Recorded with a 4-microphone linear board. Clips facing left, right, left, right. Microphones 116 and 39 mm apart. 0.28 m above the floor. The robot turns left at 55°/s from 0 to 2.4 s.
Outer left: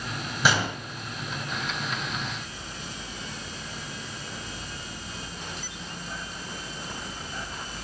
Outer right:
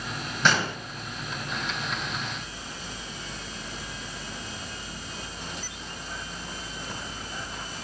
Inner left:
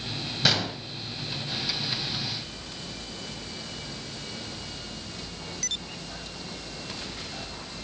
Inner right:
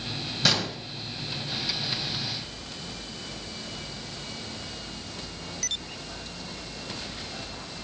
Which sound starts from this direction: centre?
A gunshot, at 0.4 s.